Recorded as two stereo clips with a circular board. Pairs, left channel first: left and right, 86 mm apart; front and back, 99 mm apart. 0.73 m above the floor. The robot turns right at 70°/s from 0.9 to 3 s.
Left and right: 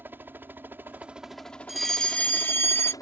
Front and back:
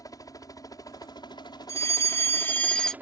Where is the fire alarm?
10° right; by 2.9 s 80° left.